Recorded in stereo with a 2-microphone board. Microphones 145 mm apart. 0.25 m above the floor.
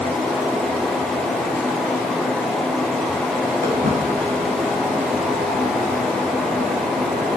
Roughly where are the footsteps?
Right.